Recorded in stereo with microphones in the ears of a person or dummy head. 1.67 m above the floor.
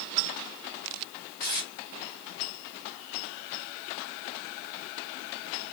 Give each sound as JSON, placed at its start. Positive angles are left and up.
{"t": 1.4, "sound": "tape being pulled", "side_deg": -40, "distance_m": 1.4}